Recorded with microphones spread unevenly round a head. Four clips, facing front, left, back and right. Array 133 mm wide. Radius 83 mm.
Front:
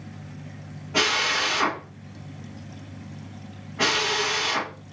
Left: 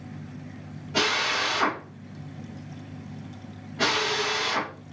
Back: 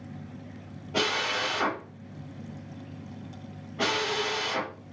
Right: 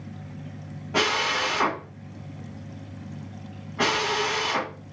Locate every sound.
0.9 s a drill: 100° right, 1.1 m